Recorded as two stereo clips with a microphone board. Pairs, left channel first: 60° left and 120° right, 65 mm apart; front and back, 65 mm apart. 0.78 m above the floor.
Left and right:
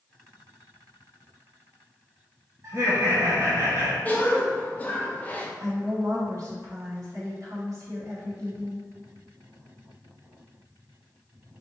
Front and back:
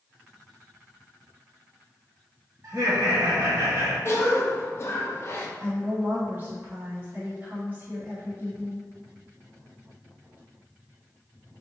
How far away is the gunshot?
No gunshot in this recording.